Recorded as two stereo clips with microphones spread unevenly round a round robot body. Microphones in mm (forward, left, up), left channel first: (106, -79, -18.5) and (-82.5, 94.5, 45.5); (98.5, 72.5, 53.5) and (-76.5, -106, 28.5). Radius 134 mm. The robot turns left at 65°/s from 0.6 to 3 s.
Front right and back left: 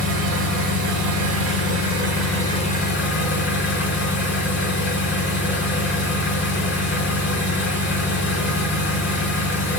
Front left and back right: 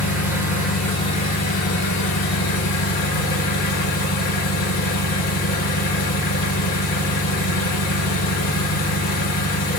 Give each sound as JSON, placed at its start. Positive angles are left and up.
{"t": 0.0, "sound": "an engine running", "azimuth_deg": 145, "distance_m": 1.3}